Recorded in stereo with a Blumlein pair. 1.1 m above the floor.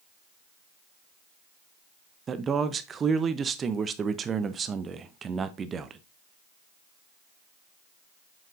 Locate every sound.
2.3 s a man speaking: 20° right, 0.5 m